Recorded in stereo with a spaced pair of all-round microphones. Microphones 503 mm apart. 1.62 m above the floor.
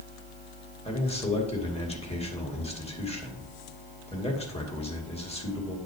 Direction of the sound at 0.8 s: 10° left (ahead or behind).